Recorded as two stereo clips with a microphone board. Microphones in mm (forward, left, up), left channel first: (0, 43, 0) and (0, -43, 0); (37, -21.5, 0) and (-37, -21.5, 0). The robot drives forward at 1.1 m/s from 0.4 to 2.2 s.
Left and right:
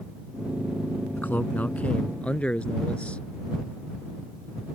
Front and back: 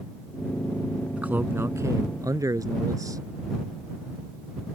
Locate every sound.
1.2 s a man speaking: 130° left; by 3.2 s 160° left